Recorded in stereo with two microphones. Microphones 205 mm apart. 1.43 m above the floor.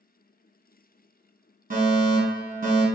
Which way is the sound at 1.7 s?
45° right (ahead or behind).